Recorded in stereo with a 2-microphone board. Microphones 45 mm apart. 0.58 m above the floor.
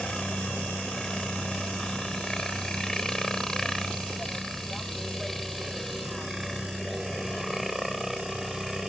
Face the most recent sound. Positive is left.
turn(degrees=-5)  # may be behind; listen again after turning